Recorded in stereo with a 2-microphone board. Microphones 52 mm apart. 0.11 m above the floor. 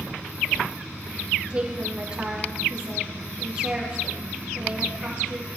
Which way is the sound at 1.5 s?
15° right (ahead or behind).